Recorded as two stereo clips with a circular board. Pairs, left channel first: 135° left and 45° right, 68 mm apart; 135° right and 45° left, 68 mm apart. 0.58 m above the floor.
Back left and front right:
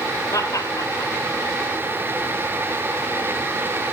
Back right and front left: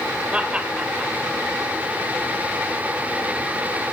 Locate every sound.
0.3 s laughter: 115° left, 3 m